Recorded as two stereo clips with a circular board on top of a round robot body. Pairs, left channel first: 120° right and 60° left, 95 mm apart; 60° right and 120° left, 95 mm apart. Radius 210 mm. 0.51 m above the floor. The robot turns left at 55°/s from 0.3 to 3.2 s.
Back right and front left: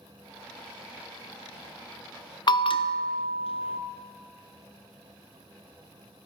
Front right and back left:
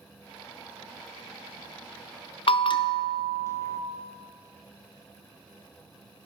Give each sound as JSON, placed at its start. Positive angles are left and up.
{"t": 2.5, "sound": "a bell", "azimuth_deg": -80, "distance_m": 0.5}